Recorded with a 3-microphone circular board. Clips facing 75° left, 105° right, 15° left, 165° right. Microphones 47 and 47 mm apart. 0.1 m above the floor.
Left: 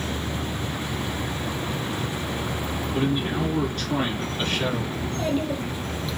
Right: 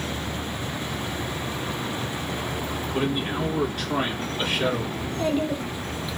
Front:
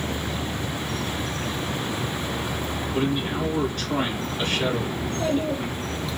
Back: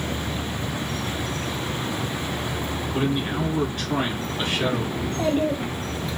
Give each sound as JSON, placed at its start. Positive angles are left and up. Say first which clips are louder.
{"t": 2.9, "sound": "a man speaking", "louder": "left 1 dB, even", "azimuth_deg": -155, "distance_m": 1.1}
{"t": 5.0, "sound": "a child speaking", "louder": "even, back 2 dB", "azimuth_deg": 175, "distance_m": 1.3}